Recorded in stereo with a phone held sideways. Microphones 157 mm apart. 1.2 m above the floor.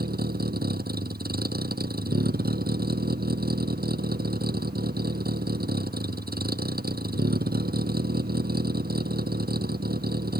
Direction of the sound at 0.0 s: 85° right.